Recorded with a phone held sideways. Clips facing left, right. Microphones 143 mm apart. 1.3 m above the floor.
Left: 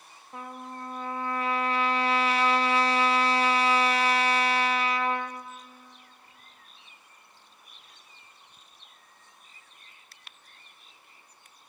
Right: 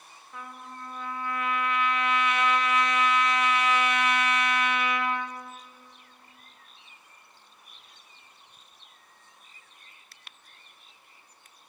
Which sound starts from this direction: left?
A trumpet, at 0.3 s.